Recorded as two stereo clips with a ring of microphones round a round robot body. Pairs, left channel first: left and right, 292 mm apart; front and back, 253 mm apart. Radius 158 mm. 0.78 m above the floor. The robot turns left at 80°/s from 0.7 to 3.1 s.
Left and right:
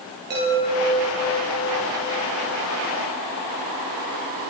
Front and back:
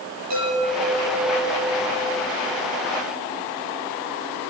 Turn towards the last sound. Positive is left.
turn(degrees=20)